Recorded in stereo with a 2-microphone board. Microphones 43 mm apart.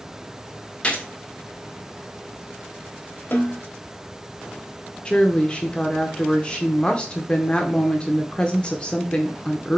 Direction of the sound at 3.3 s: 50° left (ahead or behind).